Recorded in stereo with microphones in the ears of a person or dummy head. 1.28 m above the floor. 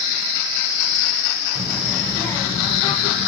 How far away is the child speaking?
About 0.7 m.